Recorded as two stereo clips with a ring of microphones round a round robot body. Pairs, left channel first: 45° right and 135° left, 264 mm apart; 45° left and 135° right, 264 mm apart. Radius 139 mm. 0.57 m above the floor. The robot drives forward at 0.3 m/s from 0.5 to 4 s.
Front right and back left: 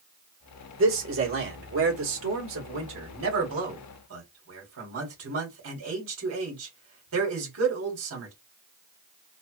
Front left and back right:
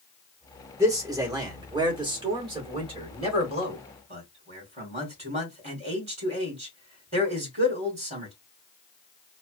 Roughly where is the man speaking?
Behind left.